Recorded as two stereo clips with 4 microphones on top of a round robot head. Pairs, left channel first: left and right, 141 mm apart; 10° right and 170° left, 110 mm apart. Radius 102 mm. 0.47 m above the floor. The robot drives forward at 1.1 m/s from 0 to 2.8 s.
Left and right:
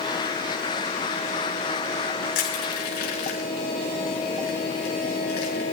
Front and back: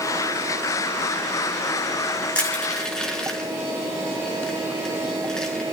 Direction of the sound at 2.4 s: 70° left.